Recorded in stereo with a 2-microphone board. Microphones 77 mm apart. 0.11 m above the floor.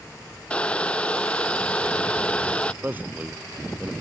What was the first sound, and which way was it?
Boiling, 15° left (ahead or behind).